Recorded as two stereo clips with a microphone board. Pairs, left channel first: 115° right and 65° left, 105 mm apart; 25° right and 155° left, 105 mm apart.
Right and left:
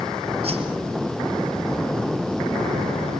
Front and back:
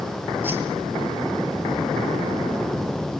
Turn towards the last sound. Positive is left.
turn(degrees=85)